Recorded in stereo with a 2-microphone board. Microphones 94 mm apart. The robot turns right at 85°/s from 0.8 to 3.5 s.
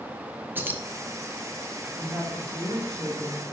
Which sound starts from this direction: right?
Keys jangling, at 0.6 s.